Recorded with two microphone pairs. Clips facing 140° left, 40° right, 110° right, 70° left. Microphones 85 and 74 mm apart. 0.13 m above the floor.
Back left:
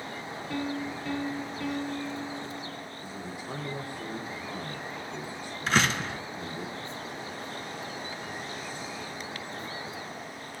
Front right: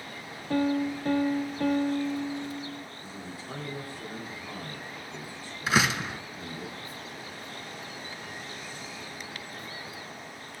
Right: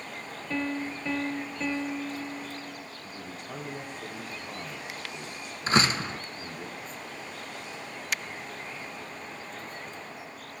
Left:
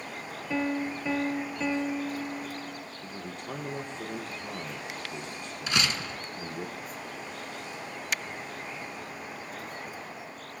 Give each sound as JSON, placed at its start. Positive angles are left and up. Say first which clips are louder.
{"t": 0.5, "sound": "a piano", "louder": "front right 7 dB, left 2 dB", "azimuth_deg": -10, "distance_m": 0.6}
{"t": 3.0, "sound": "a man speaking", "louder": "back left 2 dB, left 2 dB", "azimuth_deg": 70, "distance_m": 4.0}
{"t": 5.7, "sound": "a door slam", "louder": "front right 1 dB, right 6 dB", "azimuth_deg": -115, "distance_m": 0.9}